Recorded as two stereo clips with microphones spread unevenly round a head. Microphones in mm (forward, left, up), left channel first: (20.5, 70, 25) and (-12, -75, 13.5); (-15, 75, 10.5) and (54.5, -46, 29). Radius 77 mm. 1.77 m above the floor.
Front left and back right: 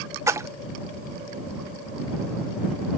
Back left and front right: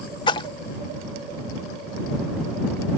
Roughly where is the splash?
Behind.